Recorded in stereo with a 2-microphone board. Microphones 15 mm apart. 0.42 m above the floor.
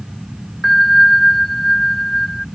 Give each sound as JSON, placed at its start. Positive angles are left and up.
{"t": 0.6, "sound": "a bell", "side_deg": 15}